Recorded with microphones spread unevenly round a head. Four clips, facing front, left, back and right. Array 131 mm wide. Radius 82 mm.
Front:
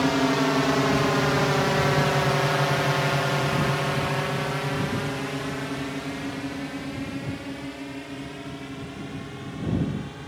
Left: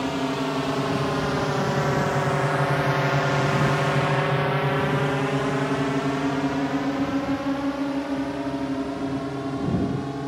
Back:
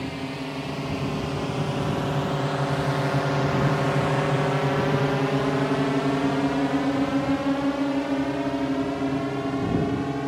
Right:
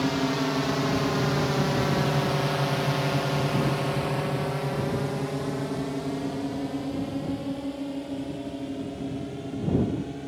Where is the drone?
10° left; by 10.3 s 160° left.